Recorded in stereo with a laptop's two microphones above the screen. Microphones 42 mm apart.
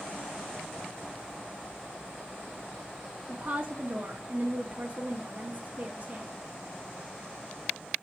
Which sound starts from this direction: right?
A woman speaking, at 3.3 s.